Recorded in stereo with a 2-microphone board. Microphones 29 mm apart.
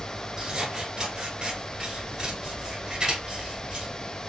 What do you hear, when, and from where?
0.4 s scissors: 35° right (ahead or behind), 1.3 m